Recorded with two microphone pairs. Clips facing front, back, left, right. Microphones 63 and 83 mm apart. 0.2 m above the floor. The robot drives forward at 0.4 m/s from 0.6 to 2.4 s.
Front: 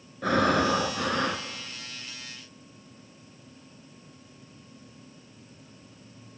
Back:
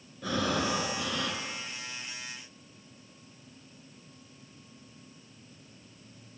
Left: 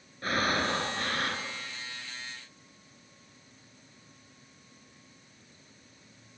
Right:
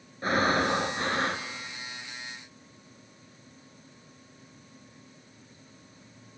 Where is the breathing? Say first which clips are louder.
Front 7 dB, right 4 dB; 25° right, 2.5 m; by 1.5 s 30° right, 2 m.